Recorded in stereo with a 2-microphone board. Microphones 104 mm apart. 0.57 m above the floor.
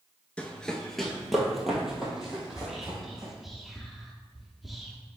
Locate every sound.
0.4 s running footsteps: 15° left (ahead or behind), 0.5 m; by 3.3 s 5° right (ahead or behind), 2 m
2.5 s whispering: centre (ahead or behind), 0.7 m